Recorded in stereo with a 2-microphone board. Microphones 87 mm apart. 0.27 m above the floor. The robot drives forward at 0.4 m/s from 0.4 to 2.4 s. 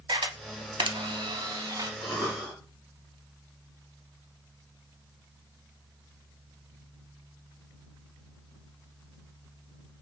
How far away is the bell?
I don't hear a bell.